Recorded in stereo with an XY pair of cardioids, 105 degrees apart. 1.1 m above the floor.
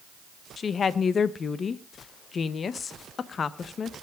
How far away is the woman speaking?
About 0.9 m.